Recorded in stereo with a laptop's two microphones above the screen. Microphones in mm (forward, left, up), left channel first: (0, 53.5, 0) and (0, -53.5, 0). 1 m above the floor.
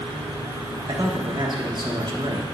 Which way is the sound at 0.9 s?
45° right (ahead or behind).